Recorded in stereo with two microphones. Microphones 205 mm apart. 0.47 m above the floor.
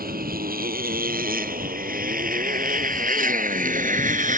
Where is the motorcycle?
45° right (ahead or behind); by 4.4 s 40° right (ahead or behind).